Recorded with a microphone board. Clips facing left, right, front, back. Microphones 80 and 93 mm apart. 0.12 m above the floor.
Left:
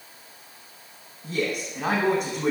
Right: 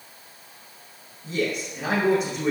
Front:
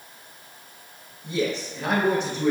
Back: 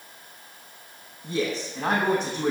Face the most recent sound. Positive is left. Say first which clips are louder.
# right 1 dB, front 1 dB
turn(degrees=130)